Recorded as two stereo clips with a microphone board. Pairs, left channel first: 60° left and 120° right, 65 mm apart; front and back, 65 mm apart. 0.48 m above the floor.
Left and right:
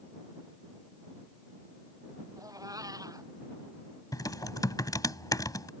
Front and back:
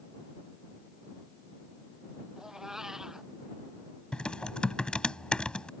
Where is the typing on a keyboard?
75° left.